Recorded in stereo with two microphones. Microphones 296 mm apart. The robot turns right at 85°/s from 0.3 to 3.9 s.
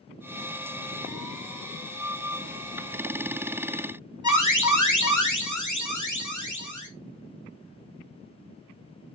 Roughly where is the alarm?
Left.